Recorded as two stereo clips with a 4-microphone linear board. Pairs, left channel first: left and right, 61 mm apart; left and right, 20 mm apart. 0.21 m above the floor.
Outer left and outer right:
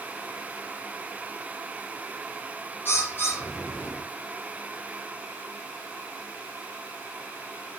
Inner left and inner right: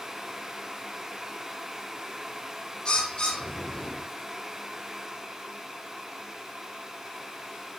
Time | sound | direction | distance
2.9 | a bird | 35° left (ahead or behind) | 7 m